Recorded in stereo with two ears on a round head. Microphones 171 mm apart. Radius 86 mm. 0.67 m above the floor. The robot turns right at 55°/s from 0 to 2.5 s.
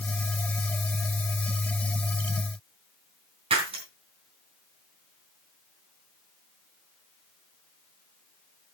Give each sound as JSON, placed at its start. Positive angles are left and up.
{"t": 3.5, "sound": "breaking glass", "side_deg": -30, "distance_m": 4.0}